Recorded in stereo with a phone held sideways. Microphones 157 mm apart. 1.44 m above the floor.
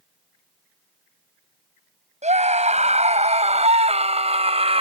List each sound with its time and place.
2.2 s a scream: 45° right (ahead or behind); by 4.8 s 40° right (ahead or behind)